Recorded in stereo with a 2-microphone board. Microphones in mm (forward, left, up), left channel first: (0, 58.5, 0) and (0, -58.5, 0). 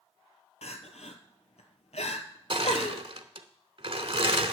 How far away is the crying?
About 1.1 m.